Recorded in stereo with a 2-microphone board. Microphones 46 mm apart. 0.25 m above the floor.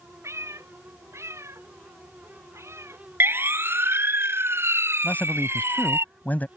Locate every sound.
0.2 s a cat meowing: 85° right; by 3.0 s 75° right (ahead or behind)
3.2 s a siren: 55° right (ahead or behind); by 6.0 s 65° right (ahead or behind)
5.0 s a man speaking: 40° left (ahead or behind)